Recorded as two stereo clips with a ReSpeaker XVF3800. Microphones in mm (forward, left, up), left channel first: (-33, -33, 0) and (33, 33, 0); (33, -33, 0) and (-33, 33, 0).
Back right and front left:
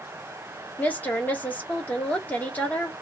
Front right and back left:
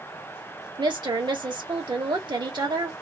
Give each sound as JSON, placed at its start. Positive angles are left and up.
{"t": 0.8, "sound": "a woman speaking", "azimuth_deg": 155, "distance_m": 1.3}